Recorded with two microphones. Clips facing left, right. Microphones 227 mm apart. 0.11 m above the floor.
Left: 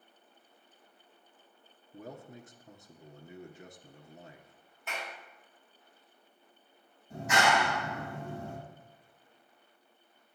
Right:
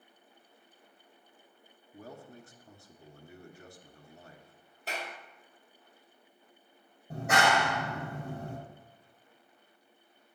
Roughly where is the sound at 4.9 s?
Right.